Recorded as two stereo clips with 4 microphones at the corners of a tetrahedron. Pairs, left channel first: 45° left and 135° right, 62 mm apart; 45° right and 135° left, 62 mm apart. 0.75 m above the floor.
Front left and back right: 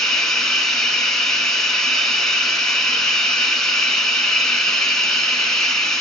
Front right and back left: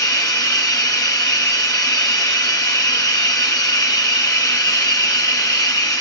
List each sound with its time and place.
0.0 s running water: 40° right, 1.8 m